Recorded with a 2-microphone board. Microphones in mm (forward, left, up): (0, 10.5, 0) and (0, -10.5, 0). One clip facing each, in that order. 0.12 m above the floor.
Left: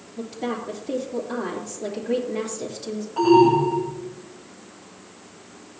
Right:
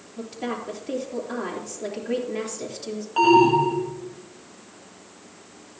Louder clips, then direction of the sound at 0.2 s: Left 2 dB; 20° right (ahead or behind).